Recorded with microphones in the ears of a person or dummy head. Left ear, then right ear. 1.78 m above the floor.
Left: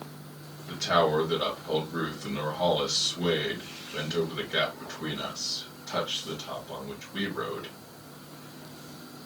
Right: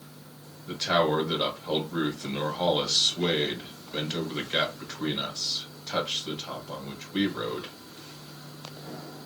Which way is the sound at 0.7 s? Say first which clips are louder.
Even; 35° right (ahead or behind).